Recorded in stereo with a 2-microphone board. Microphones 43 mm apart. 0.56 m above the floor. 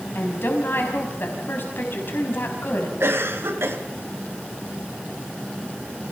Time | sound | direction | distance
0.1 | a woman speaking | 55° left (ahead or behind) | 5 m
3.0 | a cough | 75° right (ahead or behind) | 3.5 m